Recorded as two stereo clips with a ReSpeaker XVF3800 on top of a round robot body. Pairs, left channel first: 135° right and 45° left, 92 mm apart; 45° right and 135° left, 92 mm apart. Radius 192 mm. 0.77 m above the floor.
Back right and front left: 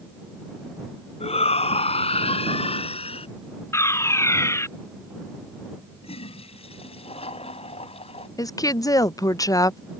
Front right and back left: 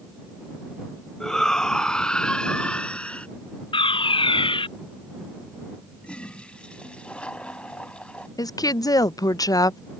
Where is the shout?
130° right; by 3.3 s 125° right.